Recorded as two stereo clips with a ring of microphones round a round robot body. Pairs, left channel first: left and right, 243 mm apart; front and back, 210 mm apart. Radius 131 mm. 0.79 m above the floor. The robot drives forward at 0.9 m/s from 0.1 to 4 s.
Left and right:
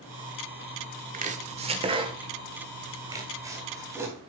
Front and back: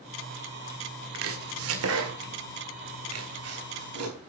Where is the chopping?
150° right, 1.5 m; by 4.2 s 170° right, 4 m.